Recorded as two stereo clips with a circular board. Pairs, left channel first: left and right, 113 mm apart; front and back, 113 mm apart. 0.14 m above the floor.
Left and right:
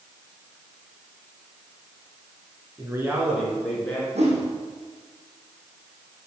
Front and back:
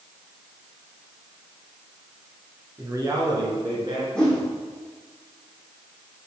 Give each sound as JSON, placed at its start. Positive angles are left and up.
{"t": 2.8, "sound": "a man speaking", "azimuth_deg": -130, "distance_m": 2.0}
{"t": 4.2, "sound": "a whoosh", "azimuth_deg": -80, "distance_m": 2.5}